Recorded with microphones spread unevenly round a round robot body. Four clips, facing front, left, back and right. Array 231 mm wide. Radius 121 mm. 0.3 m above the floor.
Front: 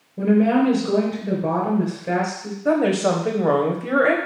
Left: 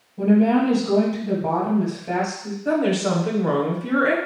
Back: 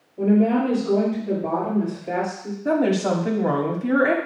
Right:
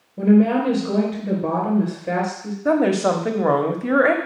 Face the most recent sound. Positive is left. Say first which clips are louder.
# right 3 dB, front 2 dB
turn(degrees=-65)